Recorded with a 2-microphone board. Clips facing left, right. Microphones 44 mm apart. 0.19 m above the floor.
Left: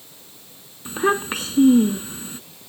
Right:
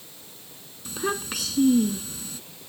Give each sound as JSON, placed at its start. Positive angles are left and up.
{"t": 0.8, "sound": "a child speaking", "side_deg": 35}